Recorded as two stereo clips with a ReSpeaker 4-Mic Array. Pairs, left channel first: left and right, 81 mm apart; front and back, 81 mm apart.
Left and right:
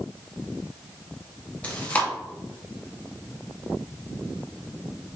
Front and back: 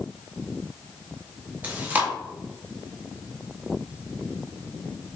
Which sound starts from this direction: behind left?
Chewing, at 1.6 s.